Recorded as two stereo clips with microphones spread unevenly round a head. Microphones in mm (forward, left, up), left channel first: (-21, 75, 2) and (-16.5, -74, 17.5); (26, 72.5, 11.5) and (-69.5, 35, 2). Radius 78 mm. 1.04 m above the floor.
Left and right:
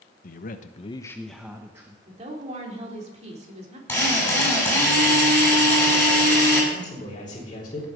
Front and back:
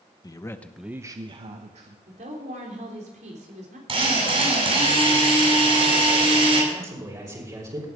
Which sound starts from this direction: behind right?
A woman speaking, at 2.1 s.